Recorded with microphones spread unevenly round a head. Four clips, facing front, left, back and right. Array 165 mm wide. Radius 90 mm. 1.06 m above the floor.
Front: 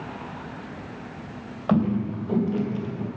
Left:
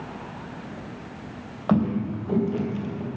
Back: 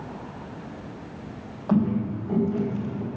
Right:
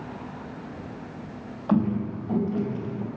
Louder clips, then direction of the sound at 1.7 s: Left 1 dB, even; 55° left.